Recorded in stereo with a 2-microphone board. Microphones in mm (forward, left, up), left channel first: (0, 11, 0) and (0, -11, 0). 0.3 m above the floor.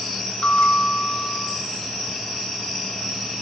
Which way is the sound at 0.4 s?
65° left (ahead or behind).